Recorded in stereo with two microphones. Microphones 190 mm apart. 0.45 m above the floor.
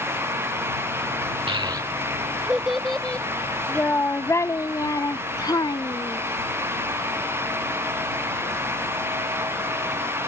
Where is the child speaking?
30° right (ahead or behind); by 6.2 s 25° left (ahead or behind).